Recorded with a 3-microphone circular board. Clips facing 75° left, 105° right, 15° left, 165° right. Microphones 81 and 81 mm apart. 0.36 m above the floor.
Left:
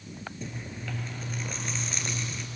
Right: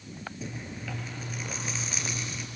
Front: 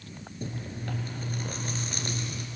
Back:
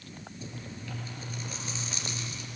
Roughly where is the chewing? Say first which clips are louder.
Right 1 dB, front 7 dB; ahead.